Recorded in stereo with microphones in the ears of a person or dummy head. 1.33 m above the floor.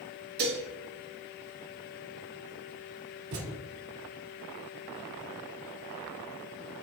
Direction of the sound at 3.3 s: 60° right (ahead or behind).